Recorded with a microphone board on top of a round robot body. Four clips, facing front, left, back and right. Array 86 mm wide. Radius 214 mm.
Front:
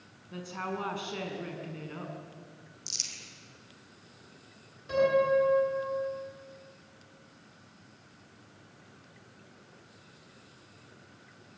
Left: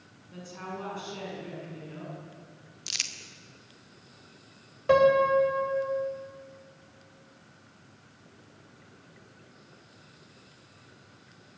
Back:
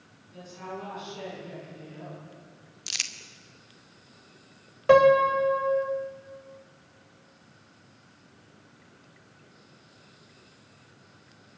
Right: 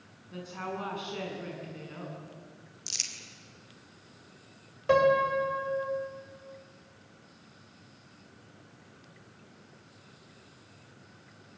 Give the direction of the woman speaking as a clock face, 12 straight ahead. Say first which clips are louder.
Right 2 dB, front 3 dB; 1 o'clock.